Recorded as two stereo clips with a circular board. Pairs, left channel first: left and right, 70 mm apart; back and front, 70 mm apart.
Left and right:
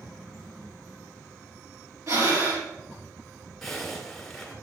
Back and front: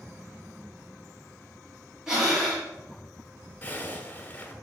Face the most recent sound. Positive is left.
turn(degrees=175)